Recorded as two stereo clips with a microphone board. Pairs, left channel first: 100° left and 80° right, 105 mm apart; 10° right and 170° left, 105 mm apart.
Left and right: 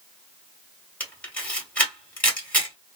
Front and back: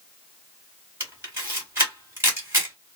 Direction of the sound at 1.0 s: 155° left.